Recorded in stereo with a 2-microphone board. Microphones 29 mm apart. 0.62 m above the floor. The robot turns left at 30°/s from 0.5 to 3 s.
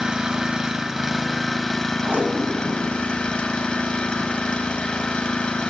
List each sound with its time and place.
0.0 s an engine running: 150° right, 0.7 m; by 5.7 s 135° left, 0.7 m
2.0 s tape being pulled: 70° right (ahead or behind), 1.1 m; by 4.4 s 50° right (ahead or behind), 1.1 m